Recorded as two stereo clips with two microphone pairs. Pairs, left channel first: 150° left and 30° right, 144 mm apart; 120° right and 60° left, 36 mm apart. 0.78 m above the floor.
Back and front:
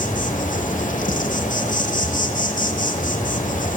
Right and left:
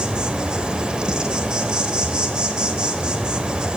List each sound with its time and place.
0.0 s an insect: 125° left, 1.2 m